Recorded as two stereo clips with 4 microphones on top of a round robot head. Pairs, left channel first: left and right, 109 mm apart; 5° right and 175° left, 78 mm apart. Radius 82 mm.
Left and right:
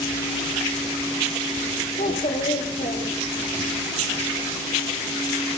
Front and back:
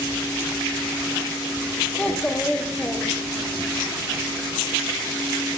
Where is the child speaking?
70° left, 1.5 m.